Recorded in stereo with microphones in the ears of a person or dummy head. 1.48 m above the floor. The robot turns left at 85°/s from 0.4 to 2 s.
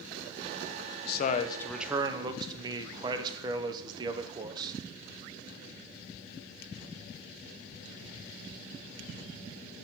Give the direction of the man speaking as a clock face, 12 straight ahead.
10 o'clock.